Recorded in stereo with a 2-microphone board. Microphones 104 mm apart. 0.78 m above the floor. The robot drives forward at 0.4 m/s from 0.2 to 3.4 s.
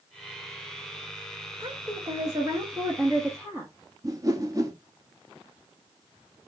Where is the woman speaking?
40° right (ahead or behind), 1.2 m; by 3.7 s 25° right (ahead or behind), 1.5 m.